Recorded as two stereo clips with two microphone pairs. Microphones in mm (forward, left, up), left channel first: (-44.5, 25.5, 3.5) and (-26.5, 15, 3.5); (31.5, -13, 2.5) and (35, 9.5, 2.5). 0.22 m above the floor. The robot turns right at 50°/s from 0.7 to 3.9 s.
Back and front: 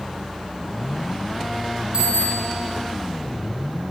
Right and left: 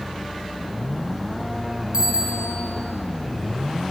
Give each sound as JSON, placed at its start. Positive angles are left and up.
{"t": 1.9, "sound": "a bicycle bell", "azimuth_deg": 20, "distance_m": 6.5}